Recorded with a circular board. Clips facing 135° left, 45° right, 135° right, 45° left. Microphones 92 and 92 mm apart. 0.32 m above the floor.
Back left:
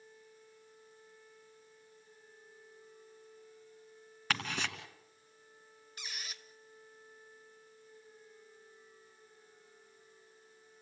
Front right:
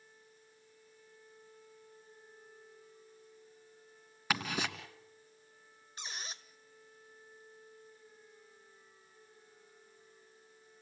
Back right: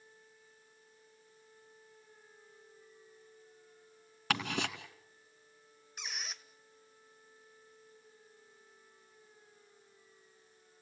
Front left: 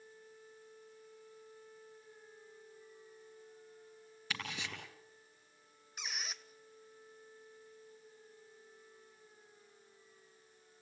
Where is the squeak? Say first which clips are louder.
Front right 2 dB, even; 45° right, 0.9 m.